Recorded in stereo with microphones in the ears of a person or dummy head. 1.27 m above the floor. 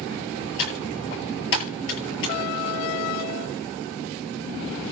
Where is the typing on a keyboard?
70° left (ahead or behind), 9.5 m.